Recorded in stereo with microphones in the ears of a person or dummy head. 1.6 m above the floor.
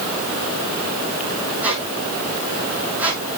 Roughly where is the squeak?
Centre.